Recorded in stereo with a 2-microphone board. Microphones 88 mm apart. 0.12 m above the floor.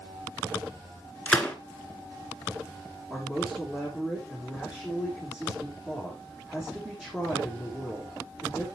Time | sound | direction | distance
1.3 | a gunshot | 15° left (ahead or behind) | 1.5 m
3.1 | a man speaking | 5° right (ahead or behind) | 4 m